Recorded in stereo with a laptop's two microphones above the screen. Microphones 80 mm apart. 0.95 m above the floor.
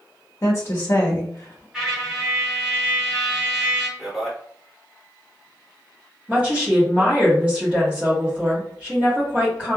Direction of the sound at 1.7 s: 5° right (ahead or behind).